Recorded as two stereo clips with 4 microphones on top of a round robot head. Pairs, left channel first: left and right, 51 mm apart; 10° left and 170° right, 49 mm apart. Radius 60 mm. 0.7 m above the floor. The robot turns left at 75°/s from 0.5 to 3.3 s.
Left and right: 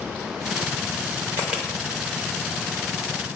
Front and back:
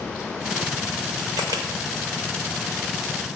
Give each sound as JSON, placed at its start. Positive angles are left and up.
{"t": 1.4, "sound": "a camera shutter", "azimuth_deg": -145, "distance_m": 0.7}